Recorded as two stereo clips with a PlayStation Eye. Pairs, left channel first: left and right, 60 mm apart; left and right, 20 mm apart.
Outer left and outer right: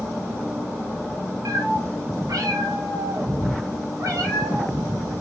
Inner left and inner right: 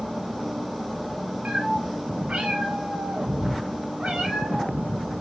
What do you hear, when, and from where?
1.4 s a cat meowing: 80° right, 3 m; by 5.2 s 70° right (ahead or behind), 5 m